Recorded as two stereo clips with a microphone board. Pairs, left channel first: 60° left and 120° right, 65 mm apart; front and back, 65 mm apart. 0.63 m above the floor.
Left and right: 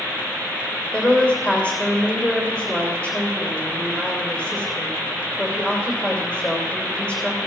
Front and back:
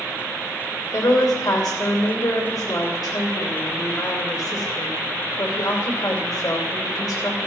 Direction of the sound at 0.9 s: 10° right.